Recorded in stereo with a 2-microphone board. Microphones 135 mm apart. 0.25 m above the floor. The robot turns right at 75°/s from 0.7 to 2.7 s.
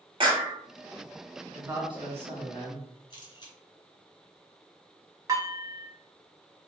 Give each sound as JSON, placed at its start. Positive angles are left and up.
{"t": 0.2, "sound": "a clap", "side_deg": -40, "distance_m": 1.1}
{"t": 1.5, "sound": "a man speaking", "azimuth_deg": -165, "distance_m": 2.0}
{"t": 3.1, "sound": "a camera shutter", "side_deg": 35, "distance_m": 1.9}
{"t": 5.3, "sound": "dishes clattering", "side_deg": -25, "distance_m": 1.2}